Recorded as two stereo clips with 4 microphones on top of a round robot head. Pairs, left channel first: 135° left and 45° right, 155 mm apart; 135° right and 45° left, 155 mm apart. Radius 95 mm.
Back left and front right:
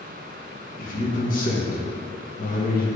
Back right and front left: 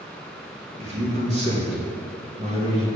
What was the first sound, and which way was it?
A man speaking, 95° left.